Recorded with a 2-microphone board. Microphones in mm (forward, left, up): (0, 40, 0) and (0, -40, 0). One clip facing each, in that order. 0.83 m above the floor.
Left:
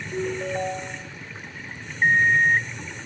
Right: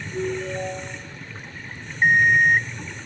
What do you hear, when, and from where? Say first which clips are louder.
0.1 s a ringtone: even; 35° left (ahead or behind), 2.5 m
2.0 s an alarm clock: right 2 dB; 20° right (ahead or behind), 0.5 m